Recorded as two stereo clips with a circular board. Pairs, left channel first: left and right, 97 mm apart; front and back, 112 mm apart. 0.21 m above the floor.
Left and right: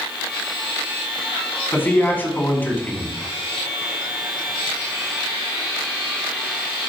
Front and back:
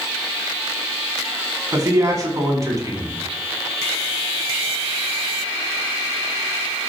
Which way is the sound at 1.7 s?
145° left.